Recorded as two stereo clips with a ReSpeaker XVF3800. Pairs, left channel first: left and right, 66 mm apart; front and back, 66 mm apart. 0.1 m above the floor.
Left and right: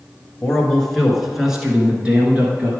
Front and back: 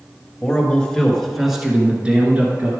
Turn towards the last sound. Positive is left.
turn(degrees=-140)